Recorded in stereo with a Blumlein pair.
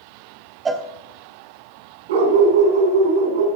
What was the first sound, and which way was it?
A cowbell, 15° right.